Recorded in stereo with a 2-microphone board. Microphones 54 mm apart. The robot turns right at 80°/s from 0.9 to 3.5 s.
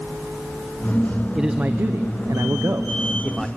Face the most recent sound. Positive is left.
turn(degrees=5)